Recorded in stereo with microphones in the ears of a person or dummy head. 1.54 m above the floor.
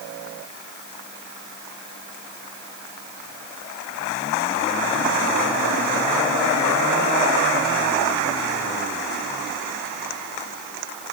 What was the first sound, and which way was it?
Only background noise.